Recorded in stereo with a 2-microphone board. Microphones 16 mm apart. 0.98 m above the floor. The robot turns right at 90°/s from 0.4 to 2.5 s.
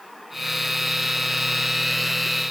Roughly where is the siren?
I don't hear a siren.